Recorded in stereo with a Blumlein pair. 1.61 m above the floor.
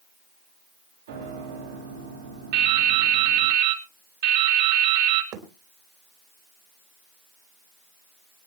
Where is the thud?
35° right, 3 m.